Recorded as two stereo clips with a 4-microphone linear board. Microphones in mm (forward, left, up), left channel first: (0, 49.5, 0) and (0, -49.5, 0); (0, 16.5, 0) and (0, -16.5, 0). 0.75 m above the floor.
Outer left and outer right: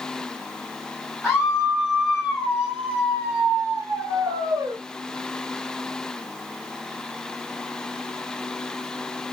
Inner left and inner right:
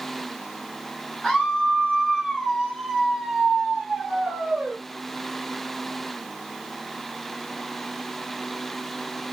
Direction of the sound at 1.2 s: 5° right (ahead or behind).